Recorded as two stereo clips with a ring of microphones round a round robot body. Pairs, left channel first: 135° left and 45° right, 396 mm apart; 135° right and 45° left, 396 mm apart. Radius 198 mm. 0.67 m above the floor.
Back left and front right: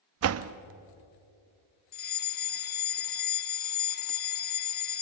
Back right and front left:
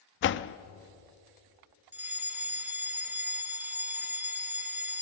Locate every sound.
0.2 s a door slam: 85° right, 0.6 m
1.9 s a fire alarm: 125° left, 1.7 m